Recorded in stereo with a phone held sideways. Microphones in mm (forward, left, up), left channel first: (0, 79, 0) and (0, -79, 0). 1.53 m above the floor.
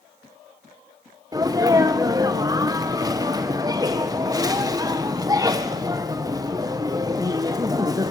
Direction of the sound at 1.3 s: 25° right (ahead or behind).